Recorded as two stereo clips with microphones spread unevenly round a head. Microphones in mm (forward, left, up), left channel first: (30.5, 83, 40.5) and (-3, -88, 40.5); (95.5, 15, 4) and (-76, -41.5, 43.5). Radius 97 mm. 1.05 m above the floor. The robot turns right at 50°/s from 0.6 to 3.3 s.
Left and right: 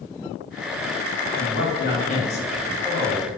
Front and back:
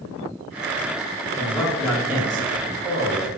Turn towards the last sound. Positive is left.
turn(degrees=175)